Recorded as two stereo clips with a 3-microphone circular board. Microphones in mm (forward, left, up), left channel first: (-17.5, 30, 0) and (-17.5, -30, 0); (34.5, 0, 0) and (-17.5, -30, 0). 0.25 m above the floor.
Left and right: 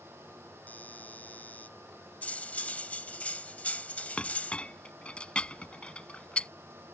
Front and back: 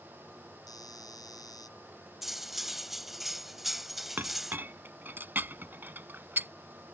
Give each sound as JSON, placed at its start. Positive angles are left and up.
{"t": 0.7, "sound": "a doorbell", "azimuth_deg": 25}
{"t": 2.2, "sound": "cutlery clinking", "azimuth_deg": 125}
{"t": 4.2, "sound": "a clink", "azimuth_deg": 160}